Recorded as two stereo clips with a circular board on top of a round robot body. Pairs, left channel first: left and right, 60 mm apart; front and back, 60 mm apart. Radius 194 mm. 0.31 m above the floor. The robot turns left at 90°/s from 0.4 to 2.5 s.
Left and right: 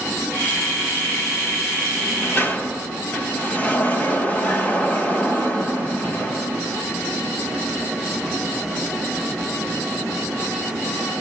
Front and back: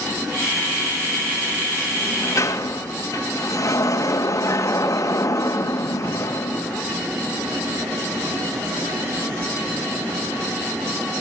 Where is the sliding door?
80° left, 2 m; by 6.8 s 25° left, 2 m.